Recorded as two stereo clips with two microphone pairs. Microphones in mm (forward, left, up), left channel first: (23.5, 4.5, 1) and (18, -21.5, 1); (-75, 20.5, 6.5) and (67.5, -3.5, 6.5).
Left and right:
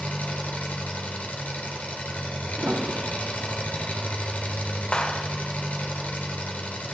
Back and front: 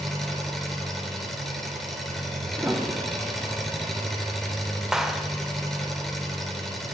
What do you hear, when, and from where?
0.0 s an engine running: 80° left, 3 m
2.6 s a piano: 90° right, 1.1 m
4.9 s a clap: 75° left, 0.9 m